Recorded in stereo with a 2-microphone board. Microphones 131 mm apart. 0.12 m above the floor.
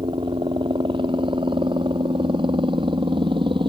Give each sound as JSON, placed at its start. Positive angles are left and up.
{"t": 0.0, "sound": "a helicopter", "side_deg": -40}